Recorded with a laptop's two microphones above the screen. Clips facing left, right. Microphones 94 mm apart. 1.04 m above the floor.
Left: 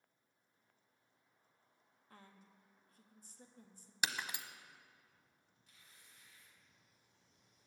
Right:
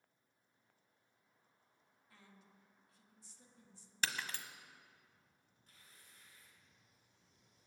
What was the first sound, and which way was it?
A woman speaking, 50° left (ahead or behind).